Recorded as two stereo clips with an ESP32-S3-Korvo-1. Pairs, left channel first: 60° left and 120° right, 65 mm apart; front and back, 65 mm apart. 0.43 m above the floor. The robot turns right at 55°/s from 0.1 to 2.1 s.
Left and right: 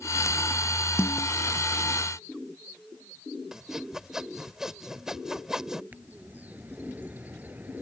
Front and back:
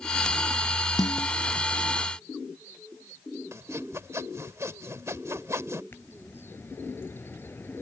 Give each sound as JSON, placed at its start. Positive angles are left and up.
{"t": 1.0, "sound": "a snare drum", "azimuth_deg": 10}
{"t": 3.5, "sound": "sawing", "azimuth_deg": 160}
{"t": 5.9, "sound": "a bird", "azimuth_deg": -55}